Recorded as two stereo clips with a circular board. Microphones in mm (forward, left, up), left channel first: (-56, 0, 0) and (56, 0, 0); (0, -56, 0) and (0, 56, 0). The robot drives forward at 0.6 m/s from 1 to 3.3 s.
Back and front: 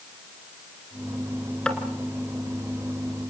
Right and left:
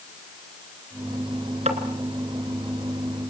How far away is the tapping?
About 2.5 m.